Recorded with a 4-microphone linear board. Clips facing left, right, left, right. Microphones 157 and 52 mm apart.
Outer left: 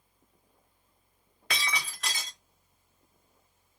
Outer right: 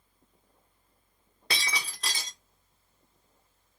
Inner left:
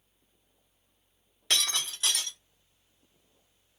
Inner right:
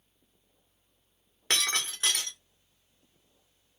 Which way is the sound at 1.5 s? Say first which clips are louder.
Even, inner right 1 dB; 35° right (ahead or behind).